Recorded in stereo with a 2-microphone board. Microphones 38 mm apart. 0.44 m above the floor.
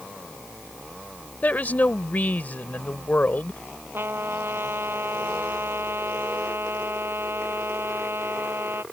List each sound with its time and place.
1.4 s a woman speaking: 45° left (ahead or behind)
3.9 s a trumpet: 75° right (ahead or behind)